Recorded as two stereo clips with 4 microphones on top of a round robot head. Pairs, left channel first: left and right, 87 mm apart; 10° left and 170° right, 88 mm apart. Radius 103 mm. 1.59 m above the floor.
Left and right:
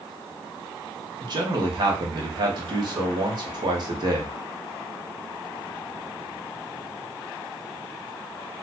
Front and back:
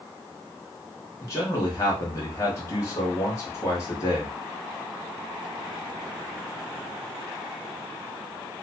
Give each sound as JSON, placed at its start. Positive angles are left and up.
{"t": 1.2, "sound": "a man speaking", "azimuth_deg": -50, "distance_m": 1.4}